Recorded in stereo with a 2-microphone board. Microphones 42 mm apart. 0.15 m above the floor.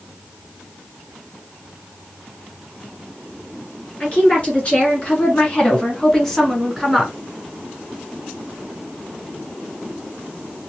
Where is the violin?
I don't hear a violin.